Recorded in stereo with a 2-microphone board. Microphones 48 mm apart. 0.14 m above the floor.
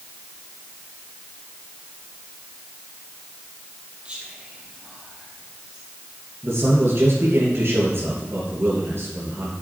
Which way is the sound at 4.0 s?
30° right (ahead or behind).